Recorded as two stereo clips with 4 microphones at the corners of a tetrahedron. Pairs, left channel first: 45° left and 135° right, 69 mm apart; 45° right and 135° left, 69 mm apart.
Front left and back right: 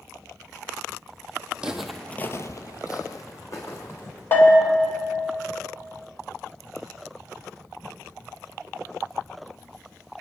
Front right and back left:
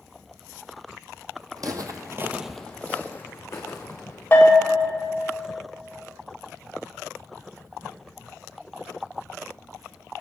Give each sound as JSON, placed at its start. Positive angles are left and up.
{"t": 1.6, "sound": "footsteps", "azimuth_deg": 150, "distance_m": 1.0}
{"t": 4.3, "sound": "a bell", "azimuth_deg": 0, "distance_m": 1.8}